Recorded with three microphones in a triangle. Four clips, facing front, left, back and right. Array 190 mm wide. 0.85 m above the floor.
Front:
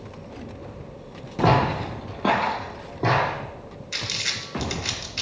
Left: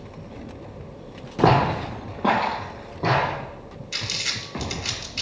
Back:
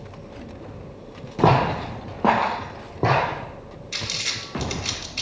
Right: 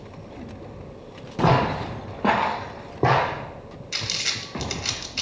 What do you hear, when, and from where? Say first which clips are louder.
1.4 s footsteps: left 2 dB, back 2 dB; 140° left, 1.7 m; by 3.4 s 115° right, 2.0 m
3.9 s crumpling: even, even; 80° right, 1.0 m